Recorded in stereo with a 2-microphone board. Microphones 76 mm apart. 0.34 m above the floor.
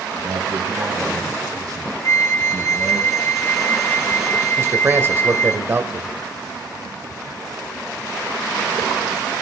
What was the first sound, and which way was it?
A man speaking, 45° right (ahead or behind).